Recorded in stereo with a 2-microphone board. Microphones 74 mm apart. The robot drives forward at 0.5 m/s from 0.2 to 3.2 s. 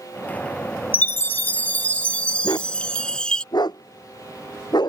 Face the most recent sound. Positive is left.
turn(degrees=70)  # may be behind; listen again after turning